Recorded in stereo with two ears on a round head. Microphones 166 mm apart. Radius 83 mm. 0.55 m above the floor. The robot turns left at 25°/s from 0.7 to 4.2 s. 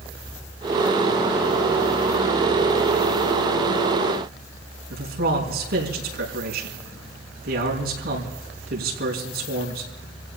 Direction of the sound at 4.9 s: 55° right (ahead or behind).